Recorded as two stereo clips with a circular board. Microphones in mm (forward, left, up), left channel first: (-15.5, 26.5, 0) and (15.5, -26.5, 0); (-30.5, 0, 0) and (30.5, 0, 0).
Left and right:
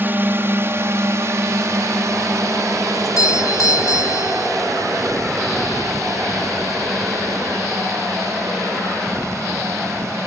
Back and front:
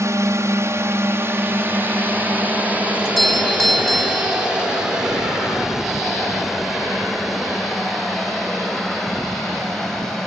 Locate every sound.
0.0 s a drone: 10° right; by 10.3 s 95° right
3.0 s a doorbell: 90° left